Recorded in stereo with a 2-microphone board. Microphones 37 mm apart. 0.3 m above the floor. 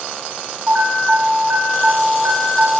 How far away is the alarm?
About 5.5 m.